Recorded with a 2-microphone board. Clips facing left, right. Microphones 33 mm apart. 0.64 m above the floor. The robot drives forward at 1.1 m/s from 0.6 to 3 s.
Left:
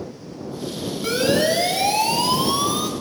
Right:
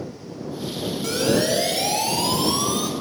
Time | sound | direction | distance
1.0 | a siren | 20° left (ahead or behind) | 4.5 m